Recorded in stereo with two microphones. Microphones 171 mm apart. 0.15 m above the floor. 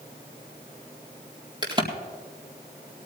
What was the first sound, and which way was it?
A crack, 25° right (ahead or behind).